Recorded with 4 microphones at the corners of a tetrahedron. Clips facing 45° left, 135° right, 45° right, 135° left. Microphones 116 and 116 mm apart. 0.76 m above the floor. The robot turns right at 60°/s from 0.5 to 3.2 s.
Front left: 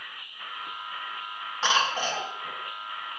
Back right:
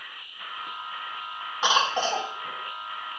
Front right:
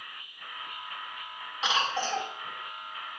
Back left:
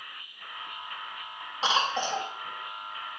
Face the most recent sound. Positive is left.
turn(degrees=-105)